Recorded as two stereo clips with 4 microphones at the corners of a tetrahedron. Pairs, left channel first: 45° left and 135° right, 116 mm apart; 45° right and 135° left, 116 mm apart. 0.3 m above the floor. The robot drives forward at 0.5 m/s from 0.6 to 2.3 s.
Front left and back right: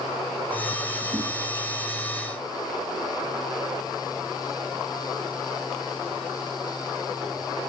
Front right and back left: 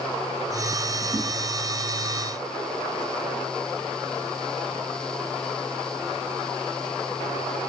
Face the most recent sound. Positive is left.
turn(degrees=-150)